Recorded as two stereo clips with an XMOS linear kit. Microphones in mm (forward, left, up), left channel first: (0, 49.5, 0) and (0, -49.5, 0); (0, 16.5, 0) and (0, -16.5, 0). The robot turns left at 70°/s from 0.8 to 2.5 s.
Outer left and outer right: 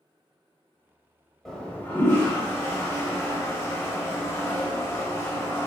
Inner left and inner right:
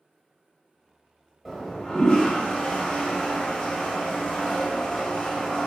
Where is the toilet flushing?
5° left (ahead or behind), 0.7 m; by 5.7 s 30° left (ahead or behind), 0.7 m.